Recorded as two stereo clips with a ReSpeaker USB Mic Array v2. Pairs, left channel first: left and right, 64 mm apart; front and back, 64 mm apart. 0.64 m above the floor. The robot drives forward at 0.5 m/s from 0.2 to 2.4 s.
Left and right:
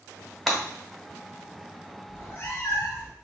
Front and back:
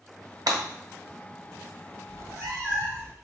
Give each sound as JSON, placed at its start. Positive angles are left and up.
{"t": 0.5, "sound": "breaking glass", "azimuth_deg": -175, "distance_m": 1.0}
{"t": 2.1, "sound": "a cat meowing", "azimuth_deg": 145, "distance_m": 1.2}